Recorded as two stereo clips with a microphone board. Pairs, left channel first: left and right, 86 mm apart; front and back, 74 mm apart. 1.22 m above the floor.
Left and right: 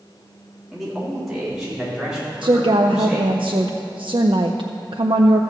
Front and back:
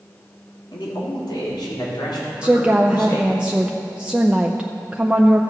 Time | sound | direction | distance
0.7 | a man speaking | 5° right | 3 m
2.4 | a woman speaking | 105° right | 0.5 m